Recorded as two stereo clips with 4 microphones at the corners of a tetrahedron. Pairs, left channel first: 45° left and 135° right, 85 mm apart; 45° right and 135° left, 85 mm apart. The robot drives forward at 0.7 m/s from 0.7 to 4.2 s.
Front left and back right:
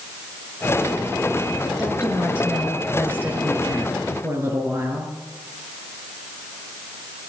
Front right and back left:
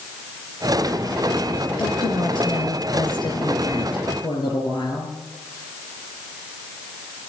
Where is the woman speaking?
55° right, 6 m; by 5.1 s 75° right, 5.5 m.